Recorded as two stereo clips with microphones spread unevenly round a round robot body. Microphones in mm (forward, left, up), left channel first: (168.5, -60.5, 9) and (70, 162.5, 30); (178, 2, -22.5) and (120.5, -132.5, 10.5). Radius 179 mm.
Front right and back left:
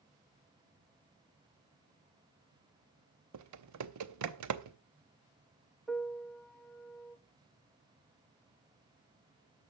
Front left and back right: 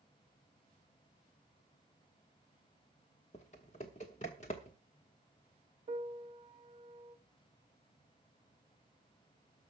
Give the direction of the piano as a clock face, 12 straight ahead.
5 o'clock.